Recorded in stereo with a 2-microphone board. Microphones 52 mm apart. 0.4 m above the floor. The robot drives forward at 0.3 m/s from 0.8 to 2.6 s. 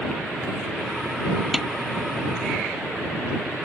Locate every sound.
1.5 s a snare drum: 10° right (ahead or behind)